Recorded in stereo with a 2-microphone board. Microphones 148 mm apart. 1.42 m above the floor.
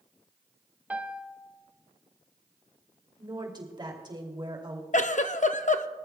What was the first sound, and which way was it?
A piano, 10° right (ahead or behind).